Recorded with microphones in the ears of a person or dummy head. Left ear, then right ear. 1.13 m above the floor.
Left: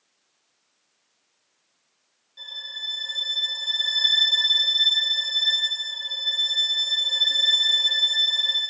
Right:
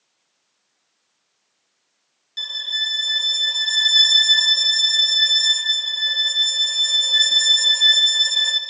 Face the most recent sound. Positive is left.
turn(degrees=-80)